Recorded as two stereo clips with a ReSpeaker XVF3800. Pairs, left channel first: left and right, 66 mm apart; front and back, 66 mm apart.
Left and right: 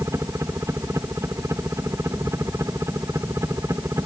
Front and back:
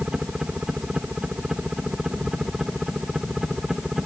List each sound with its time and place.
0.0 s a helicopter: 105° right; by 4.1 s 95° right